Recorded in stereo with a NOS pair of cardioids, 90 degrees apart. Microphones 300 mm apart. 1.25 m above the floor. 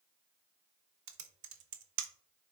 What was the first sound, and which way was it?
Typing on a keyboard, 70° right.